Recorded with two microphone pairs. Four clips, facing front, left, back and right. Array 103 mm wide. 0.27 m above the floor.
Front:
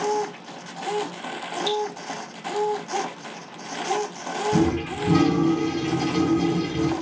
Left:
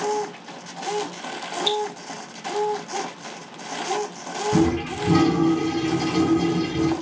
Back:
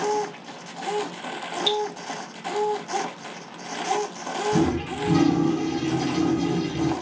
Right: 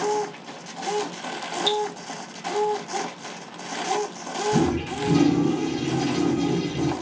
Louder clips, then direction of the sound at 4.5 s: Left 3 dB, front 1 dB; 75° left.